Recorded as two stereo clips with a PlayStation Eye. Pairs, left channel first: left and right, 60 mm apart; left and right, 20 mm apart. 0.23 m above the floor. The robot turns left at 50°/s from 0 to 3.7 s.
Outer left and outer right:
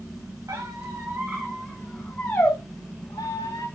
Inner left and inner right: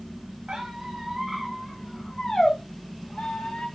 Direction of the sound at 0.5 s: 60° right (ahead or behind).